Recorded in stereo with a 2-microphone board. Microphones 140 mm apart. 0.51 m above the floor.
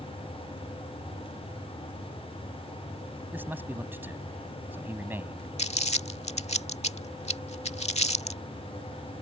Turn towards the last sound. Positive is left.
turn(degrees=50)  # may be behind; listen again after turning